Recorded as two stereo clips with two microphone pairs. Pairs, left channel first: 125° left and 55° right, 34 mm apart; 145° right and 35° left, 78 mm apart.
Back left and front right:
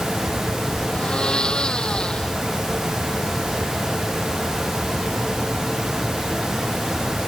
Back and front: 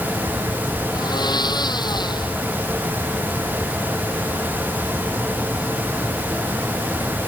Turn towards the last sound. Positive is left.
turn(degrees=-170)